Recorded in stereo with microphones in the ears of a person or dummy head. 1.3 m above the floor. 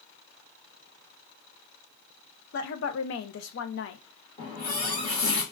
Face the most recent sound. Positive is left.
turn(degrees=45)  # may be behind; listen again after turning